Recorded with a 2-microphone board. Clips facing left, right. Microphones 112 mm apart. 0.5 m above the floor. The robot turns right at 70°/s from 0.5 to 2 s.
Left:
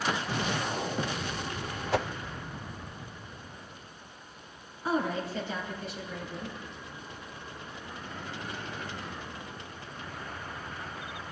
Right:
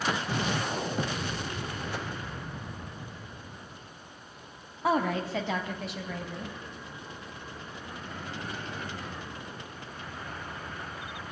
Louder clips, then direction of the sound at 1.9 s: Left 12 dB; 80° left.